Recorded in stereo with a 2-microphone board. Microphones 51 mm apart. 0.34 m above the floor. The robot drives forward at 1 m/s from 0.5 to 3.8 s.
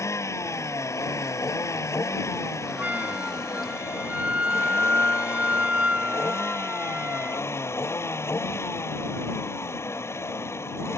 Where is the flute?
35° right (ahead or behind); by 7.5 s 25° right (ahead or behind).